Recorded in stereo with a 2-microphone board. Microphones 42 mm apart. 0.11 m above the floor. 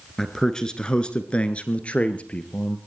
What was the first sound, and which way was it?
A man speaking, 10° left (ahead or behind).